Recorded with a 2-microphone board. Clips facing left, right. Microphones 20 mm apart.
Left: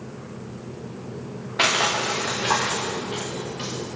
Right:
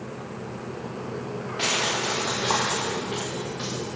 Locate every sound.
1.6 s crushing: 75° left (ahead or behind), 6.5 m